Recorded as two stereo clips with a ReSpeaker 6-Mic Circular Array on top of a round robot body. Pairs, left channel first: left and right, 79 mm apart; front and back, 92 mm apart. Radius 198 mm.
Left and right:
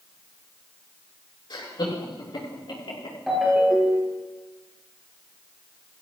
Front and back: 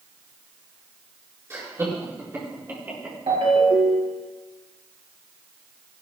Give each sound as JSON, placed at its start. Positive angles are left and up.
{"t": 1.5, "sound": "laughter", "azimuth_deg": 120, "distance_m": 8.0}
{"t": 3.3, "sound": "a ringtone", "azimuth_deg": 180, "distance_m": 5.0}